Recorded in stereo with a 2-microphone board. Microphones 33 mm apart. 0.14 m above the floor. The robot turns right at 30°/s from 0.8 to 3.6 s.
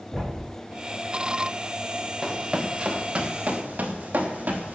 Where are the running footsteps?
10° right (ahead or behind), 3 m; by 4.8 s 50° right (ahead or behind), 4.5 m.